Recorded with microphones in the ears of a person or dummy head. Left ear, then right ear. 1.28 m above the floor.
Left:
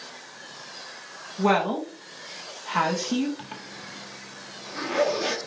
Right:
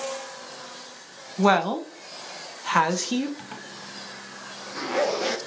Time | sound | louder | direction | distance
1.4 | a woman speaking | right 2 dB | 80° right | 0.9 m
3.4 | a zipper | even | 5° right (ahead or behind) | 0.6 m